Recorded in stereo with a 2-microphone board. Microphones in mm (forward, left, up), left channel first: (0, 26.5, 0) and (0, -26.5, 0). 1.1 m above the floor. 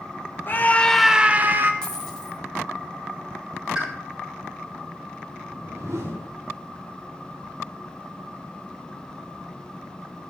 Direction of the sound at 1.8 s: 10° left (ahead or behind).